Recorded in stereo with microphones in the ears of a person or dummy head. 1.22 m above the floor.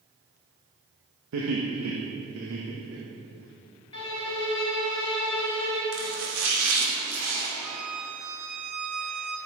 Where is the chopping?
80° right, 2.5 m.